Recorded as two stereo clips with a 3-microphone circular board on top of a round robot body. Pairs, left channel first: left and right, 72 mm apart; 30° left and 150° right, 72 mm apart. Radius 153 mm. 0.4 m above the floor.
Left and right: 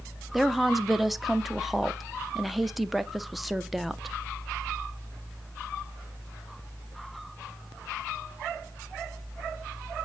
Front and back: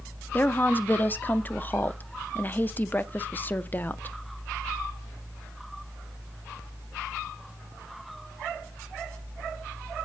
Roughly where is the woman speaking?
Ahead.